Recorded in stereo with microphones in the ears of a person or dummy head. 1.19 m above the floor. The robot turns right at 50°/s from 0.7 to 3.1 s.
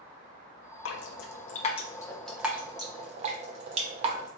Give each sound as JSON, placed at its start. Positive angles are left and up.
{"t": 0.8, "sound": "dripping", "side_deg": 70, "distance_m": 0.6}